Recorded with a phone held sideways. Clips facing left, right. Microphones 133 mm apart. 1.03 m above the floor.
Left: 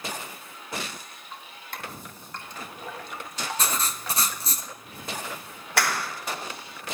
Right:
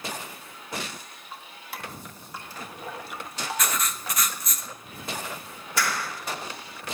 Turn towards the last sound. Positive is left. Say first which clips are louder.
# left 2 dB
turn(degrees=75)  # may be behind; listen again after turning